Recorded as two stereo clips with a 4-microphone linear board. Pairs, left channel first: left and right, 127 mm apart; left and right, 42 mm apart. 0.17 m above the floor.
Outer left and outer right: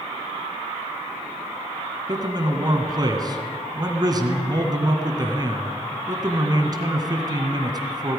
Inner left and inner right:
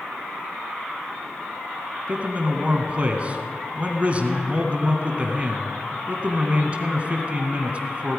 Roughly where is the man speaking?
Right.